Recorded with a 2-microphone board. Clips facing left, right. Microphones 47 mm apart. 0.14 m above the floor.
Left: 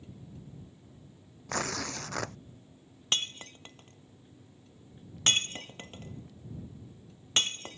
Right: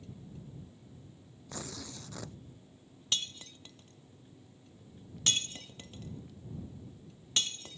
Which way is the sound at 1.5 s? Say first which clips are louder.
Left 10 dB; 70° left (ahead or behind).